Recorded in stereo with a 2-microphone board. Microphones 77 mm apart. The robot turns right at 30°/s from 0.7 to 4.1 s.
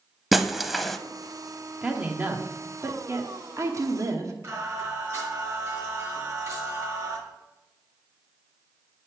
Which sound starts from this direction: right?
Singing, at 4.4 s.